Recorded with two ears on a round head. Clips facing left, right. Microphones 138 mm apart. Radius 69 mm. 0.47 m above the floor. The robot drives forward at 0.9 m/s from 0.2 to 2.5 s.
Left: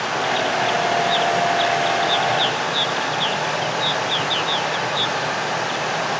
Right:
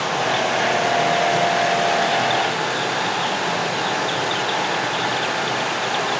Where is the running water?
75° right (ahead or behind), 8 m; by 6.2 s 60° right (ahead or behind), 9 m.